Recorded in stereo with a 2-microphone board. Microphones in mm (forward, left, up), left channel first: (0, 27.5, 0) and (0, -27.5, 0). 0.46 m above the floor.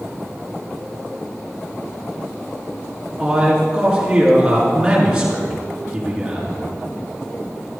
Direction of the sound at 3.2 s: 10° right (ahead or behind).